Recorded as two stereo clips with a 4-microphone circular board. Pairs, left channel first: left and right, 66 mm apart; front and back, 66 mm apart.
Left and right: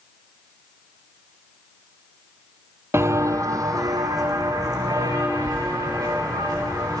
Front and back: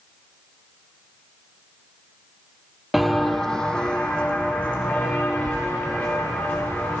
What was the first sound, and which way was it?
Footsteps, 95° right.